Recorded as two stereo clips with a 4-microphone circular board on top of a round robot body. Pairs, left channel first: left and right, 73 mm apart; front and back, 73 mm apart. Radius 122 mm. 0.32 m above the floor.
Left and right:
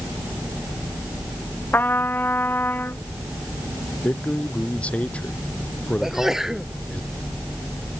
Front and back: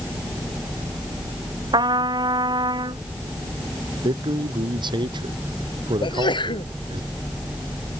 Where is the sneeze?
5° right.